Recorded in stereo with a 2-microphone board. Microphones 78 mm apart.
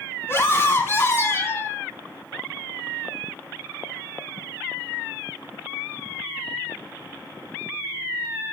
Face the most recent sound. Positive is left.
turn(degrees=30)  # may be behind; listen again after turning